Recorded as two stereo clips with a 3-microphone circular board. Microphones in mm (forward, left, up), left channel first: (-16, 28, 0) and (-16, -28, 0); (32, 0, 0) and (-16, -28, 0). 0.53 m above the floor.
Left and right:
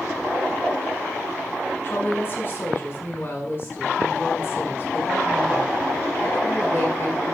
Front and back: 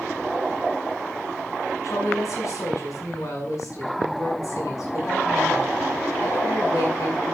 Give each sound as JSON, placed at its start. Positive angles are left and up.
{"t": 1.8, "sound": "a woman speaking", "azimuth_deg": 45, "distance_m": 5.5}